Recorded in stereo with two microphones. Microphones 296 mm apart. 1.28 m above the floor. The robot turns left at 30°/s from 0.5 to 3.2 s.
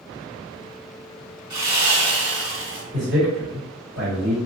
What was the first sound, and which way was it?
Sawing, 100° right.